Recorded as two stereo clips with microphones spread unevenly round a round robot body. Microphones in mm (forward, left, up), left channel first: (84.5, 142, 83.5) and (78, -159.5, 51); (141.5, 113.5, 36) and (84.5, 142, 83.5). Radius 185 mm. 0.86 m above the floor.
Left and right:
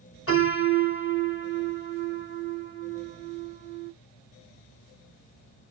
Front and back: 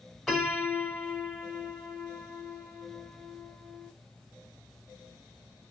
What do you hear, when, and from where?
0.3 s a piano: 40° left, 1.8 m